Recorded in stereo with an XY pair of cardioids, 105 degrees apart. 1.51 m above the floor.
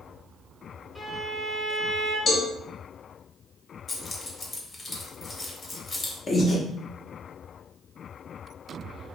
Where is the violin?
10° left, 1.1 m.